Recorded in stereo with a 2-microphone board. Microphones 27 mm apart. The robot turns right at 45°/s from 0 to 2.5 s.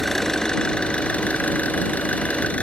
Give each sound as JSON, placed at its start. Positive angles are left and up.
{"t": 0.0, "sound": "an engine running", "azimuth_deg": 10}